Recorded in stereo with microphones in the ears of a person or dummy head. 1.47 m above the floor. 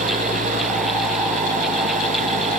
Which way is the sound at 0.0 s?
40° right (ahead or behind).